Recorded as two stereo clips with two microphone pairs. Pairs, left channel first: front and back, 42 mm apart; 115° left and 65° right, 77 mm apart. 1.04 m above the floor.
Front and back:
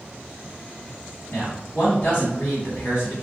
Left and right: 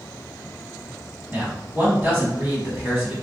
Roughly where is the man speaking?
Ahead.